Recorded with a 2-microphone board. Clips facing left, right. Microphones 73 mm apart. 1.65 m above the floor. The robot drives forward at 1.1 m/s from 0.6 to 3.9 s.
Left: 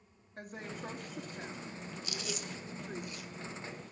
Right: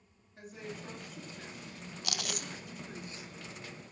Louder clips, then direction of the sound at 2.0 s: Right 2 dB; 80° right.